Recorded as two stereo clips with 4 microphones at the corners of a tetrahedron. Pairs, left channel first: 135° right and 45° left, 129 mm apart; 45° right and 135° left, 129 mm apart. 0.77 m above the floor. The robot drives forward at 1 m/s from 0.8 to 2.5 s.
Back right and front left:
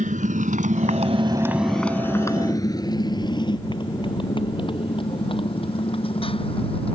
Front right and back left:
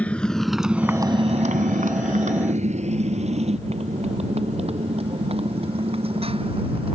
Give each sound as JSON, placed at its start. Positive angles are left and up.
{"t": 0.0, "sound": "a motorcycle", "azimuth_deg": 35}